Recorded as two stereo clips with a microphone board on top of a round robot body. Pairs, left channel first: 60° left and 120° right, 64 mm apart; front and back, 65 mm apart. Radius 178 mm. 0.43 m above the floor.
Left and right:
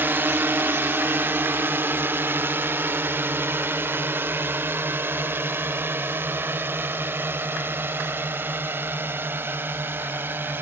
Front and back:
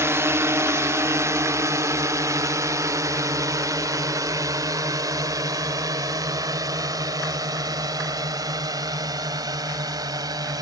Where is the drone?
160° right; by 10.6 s 175° right.